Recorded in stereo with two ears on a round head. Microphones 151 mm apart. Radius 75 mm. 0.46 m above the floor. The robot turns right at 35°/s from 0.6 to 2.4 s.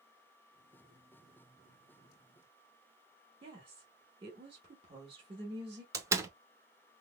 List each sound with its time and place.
3.4 s a woman speaking: 30° right (ahead or behind), 0.9 m
5.9 s a door slam: 20° right (ahead or behind), 0.6 m